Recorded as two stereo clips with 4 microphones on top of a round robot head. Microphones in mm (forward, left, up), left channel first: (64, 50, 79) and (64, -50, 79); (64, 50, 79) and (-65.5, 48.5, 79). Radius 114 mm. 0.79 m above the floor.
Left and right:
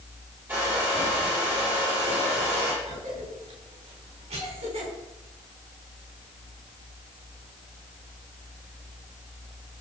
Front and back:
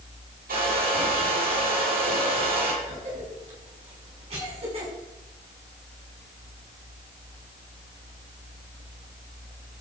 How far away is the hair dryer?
About 10 m.